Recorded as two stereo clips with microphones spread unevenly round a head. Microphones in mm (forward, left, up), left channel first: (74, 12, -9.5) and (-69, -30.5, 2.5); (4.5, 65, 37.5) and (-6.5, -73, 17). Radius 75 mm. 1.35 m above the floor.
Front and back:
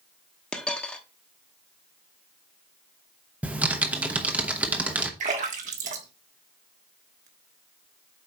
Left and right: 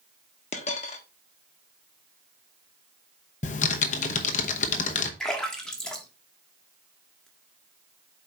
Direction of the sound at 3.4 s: 120° left.